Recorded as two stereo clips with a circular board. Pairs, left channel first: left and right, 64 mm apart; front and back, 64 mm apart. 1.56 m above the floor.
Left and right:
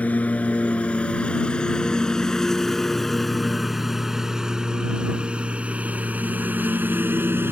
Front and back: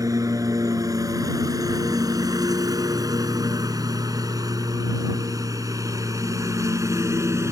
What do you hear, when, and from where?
0.0 s a lawn mower: 155° left; by 7.5 s 140° right